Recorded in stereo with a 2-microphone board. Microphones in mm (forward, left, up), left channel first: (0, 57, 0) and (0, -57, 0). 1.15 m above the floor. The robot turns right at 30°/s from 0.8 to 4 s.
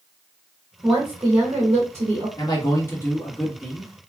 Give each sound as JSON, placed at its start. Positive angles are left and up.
{"t": 0.8, "sound": "a woman speaking", "azimuth_deg": -155, "distance_m": 1.1}
{"t": 2.4, "sound": "a man speaking", "azimuth_deg": 145, "distance_m": 1.3}